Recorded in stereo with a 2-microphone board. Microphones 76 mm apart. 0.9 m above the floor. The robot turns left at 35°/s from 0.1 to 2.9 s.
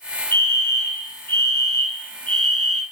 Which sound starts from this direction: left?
A fire alarm, at 0.3 s.